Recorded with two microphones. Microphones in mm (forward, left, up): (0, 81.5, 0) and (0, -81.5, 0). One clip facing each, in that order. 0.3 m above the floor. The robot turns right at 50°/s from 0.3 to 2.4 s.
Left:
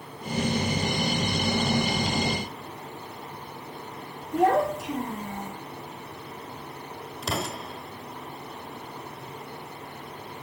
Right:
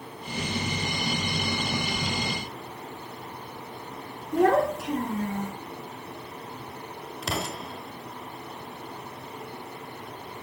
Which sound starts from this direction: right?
A child speaking, at 4.3 s.